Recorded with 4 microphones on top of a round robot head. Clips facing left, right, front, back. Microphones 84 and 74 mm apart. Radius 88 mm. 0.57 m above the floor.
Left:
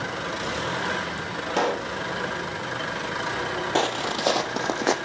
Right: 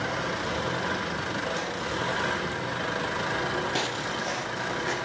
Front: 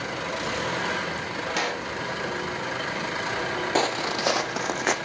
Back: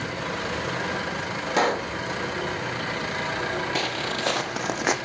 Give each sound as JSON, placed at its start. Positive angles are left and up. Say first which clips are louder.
{"t": 1.6, "sound": "a pop", "louder": "left 7 dB, back 9 dB", "azimuth_deg": 125, "distance_m": 0.8}
{"t": 3.8, "sound": "footsteps", "louder": "left 5 dB, front 3 dB", "azimuth_deg": 50, "distance_m": 0.7}